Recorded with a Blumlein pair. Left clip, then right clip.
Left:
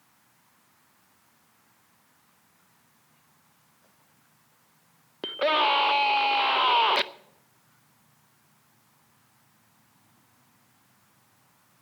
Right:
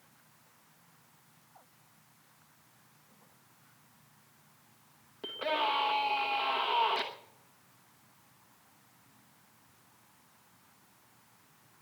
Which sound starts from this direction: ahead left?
A scream, at 5.2 s.